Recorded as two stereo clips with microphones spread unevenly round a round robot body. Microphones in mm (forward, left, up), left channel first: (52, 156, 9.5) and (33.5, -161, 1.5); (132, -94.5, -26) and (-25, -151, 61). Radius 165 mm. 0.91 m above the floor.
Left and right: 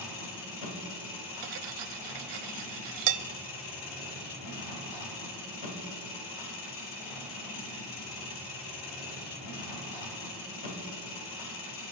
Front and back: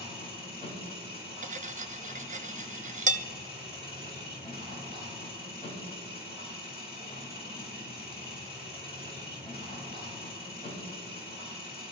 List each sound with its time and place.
0.0 s an engine running: 105° left, 2.5 m
1.4 s cutlery clinking: 115° right, 0.7 m